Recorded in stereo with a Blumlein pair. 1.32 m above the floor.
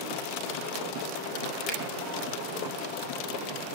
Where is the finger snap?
20° left, 5.5 m.